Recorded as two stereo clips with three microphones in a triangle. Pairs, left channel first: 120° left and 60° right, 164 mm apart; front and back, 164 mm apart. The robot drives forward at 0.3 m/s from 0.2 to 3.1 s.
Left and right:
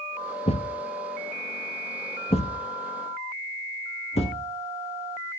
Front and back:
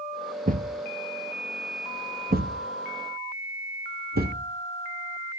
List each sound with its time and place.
0.5 s a thud: 165° left, 1.2 m; by 5.4 s 170° left, 2.0 m